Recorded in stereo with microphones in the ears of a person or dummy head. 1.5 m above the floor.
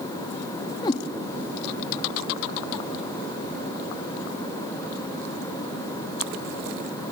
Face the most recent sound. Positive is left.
turn(degrees=25)  # may be behind; listen again after turning